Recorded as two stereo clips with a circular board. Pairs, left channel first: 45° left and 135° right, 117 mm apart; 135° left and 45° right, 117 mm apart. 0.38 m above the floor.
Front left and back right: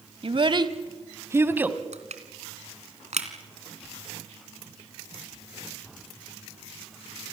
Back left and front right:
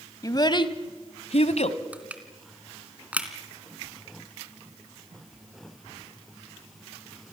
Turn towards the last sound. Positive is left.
turn(degrees=-125)